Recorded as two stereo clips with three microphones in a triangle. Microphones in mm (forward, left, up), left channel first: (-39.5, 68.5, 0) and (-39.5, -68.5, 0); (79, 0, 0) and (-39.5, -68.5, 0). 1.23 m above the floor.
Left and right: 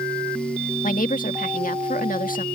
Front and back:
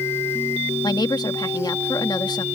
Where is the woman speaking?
90° left.